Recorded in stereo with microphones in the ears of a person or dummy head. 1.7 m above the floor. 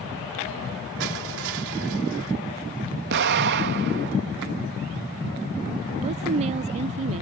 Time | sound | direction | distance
1.0 | crushing | 60° right (ahead or behind) | ?
3.1 | an explosion | 50° right (ahead or behind) | ?
6.0 | a woman speaking | 35° right (ahead or behind) | ?